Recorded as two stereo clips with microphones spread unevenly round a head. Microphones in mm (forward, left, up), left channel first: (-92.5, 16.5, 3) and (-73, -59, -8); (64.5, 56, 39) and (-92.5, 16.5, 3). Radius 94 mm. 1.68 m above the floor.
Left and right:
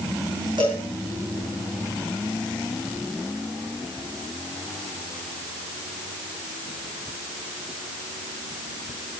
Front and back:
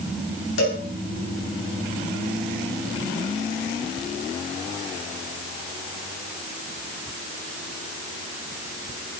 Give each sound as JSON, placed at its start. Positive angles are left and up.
{"t": 0.6, "sound": "a cowbell", "azimuth_deg": -10, "distance_m": 9.0}